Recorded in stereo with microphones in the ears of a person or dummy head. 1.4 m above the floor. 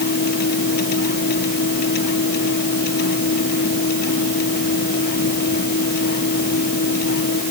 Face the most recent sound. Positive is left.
turn(degrees=55)  # may be behind; listen again after turning